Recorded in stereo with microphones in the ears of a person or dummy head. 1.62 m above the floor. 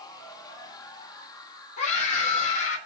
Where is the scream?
40° left (ahead or behind), 8.5 m.